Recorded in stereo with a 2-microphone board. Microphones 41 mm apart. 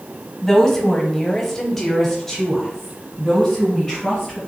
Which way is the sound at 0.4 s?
5° left (ahead or behind).